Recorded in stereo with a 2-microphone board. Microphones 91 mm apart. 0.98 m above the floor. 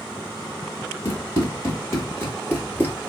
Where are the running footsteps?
30° left (ahead or behind), 1.7 m; by 3.1 s 15° left (ahead or behind), 1.0 m.